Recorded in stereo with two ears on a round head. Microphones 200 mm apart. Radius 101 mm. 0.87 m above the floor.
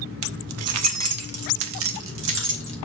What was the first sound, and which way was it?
Keys jangling, 65° right (ahead or behind).